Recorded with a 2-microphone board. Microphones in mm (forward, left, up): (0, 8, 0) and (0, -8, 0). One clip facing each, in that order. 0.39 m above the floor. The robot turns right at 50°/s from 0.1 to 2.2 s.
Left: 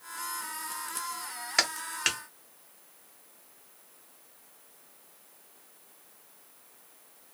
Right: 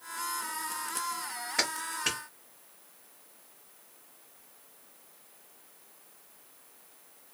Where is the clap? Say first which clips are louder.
Left 3 dB; 45° left (ahead or behind), 1.3 m; by 2.2 s 60° left (ahead or behind), 1.3 m.